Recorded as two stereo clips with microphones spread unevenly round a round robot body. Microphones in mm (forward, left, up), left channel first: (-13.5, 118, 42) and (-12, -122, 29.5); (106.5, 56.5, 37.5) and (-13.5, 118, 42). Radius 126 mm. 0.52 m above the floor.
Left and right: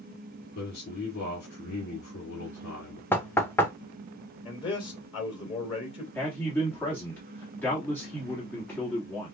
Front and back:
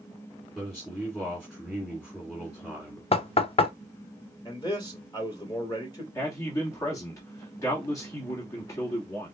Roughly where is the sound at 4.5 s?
Ahead left.